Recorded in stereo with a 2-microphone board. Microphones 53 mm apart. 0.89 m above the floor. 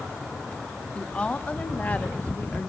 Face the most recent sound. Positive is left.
turn(degrees=35)  # may be behind; listen again after turning